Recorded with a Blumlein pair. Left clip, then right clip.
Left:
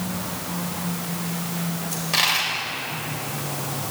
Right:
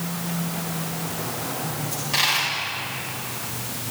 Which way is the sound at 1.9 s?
10° left.